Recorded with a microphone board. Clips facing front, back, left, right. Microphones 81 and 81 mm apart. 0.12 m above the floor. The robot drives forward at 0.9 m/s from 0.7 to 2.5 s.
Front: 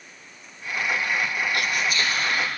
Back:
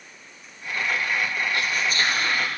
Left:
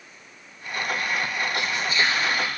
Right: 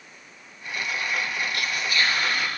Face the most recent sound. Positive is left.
turn(degrees=155)